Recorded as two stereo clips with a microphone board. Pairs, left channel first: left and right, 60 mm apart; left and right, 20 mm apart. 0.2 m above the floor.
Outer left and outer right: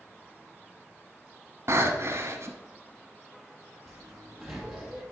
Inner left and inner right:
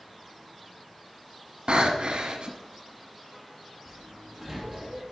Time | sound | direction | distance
1.7 | breathing | 50° right (ahead or behind) | 1.0 m
3.9 | a sliding door | 5° right (ahead or behind) | 2 m